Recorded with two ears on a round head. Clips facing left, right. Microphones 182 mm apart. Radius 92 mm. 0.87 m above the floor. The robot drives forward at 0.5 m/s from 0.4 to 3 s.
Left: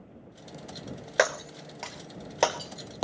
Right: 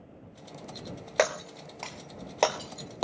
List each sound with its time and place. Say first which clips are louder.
1.2 s breaking glass: even; 10° left (ahead or behind), 1.1 m; by 3.0 s 5° left (ahead or behind), 1.9 m